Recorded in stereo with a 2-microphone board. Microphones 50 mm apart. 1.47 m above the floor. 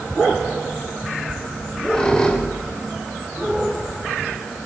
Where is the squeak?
20° left (ahead or behind), 3.5 m.